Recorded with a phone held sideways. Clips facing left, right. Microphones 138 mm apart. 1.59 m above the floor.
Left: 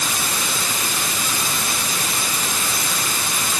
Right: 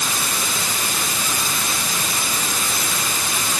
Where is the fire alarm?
No fire alarm in this recording.